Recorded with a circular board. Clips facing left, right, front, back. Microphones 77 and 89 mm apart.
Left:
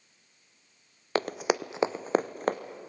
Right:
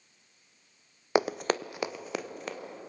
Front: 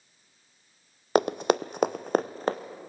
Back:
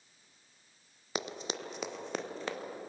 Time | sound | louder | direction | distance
1.1 | running footsteps | right 1 dB, front 15 dB | 15° right | 0.5 m